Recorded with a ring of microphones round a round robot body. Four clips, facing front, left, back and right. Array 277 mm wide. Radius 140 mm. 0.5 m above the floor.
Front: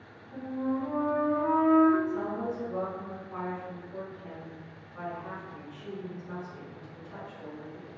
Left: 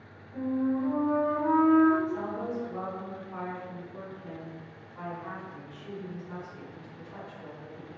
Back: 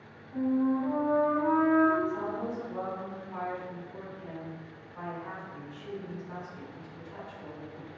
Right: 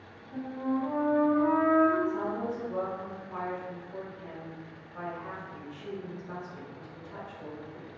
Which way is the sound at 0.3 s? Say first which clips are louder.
Left 3 dB, back 5 dB; 35° right.